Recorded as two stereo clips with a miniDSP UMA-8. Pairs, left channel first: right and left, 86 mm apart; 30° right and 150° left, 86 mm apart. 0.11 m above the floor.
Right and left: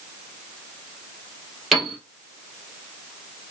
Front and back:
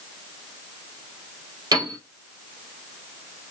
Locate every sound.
1.7 s a piano: straight behind, 2.5 m